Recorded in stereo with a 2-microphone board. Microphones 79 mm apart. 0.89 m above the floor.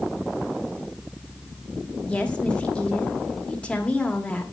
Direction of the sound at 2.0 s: 15° left (ahead or behind).